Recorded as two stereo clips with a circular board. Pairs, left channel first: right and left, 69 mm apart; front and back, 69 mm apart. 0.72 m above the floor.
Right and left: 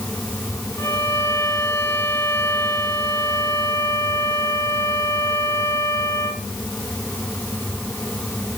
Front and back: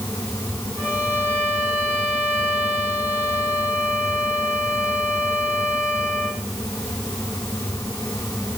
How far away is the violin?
About 5.5 m.